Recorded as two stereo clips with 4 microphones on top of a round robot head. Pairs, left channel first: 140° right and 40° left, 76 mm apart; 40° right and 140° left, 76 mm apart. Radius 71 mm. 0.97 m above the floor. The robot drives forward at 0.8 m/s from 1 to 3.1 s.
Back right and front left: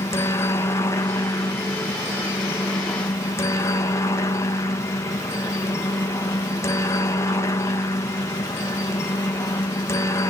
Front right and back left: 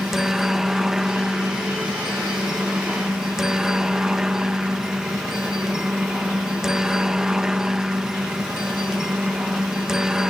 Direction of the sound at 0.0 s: 135° right.